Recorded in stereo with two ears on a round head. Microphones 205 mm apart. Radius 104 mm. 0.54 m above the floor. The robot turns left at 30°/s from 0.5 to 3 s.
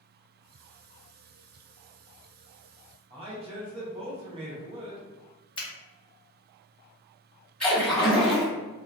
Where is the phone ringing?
I don't hear a phone ringing.